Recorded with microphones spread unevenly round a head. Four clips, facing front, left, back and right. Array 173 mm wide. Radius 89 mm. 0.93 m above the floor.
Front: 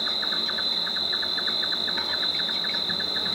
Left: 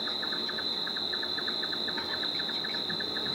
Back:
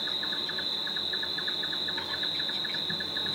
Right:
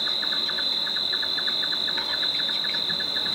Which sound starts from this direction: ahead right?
An insect, at 0.0 s.